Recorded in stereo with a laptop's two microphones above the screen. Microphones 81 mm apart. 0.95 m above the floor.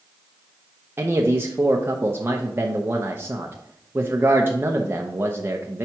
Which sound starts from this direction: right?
A man speaking, at 1.0 s.